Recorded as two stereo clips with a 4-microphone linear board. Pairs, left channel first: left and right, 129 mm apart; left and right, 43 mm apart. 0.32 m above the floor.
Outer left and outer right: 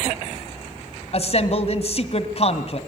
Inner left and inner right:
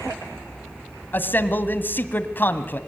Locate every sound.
1.1 s a man speaking: 50° left (ahead or behind), 1.8 m